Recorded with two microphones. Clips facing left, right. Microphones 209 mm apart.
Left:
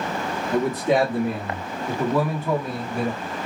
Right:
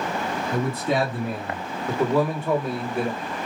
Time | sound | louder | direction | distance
0.5 | a man speaking | left 5 dB | 45° left (ahead or behind) | 1.7 m